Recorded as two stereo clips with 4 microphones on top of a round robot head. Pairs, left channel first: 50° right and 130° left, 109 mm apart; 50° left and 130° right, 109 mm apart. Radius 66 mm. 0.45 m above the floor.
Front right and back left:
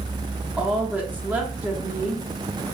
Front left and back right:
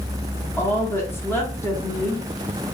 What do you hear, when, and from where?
0.6 s a woman speaking: 75° left, 1.1 m